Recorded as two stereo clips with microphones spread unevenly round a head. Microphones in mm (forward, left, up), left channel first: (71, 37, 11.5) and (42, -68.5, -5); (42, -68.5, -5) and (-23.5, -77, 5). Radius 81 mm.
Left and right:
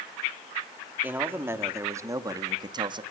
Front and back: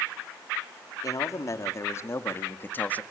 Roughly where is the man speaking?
Ahead right.